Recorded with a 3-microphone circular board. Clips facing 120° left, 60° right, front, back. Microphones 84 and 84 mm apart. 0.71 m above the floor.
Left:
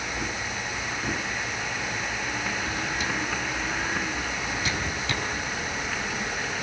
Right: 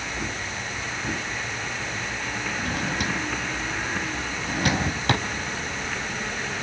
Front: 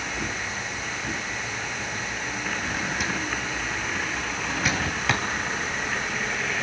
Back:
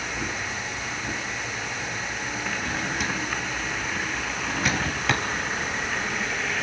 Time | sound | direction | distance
2.6 | a drawer | 90° right | 3 m